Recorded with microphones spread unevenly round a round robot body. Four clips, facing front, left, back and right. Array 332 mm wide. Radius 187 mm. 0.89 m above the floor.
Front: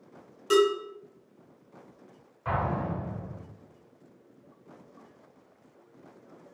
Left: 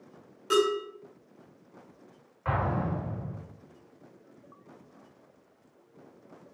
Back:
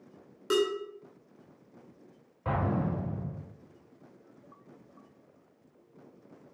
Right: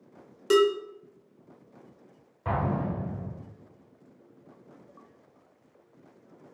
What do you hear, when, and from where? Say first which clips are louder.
0.5 s dishes clattering: right 4 dB, front 5 dB; 120° right, 2 m
2.5 s an explosion: right 1 dB, front 1 dB; 140° right, 2.5 m